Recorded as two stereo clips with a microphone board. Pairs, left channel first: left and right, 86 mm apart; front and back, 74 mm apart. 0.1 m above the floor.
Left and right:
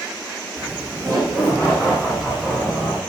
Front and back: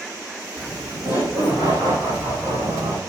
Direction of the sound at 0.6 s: 160° right.